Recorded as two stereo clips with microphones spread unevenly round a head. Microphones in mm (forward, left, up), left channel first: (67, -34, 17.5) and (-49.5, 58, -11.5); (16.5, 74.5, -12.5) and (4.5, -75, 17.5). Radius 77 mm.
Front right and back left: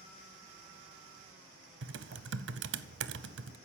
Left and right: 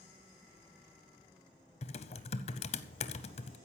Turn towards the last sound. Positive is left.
turn(degrees=140)